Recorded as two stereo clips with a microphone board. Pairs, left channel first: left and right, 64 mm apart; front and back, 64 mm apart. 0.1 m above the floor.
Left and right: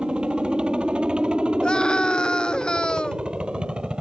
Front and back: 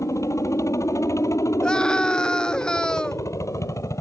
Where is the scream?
45° left.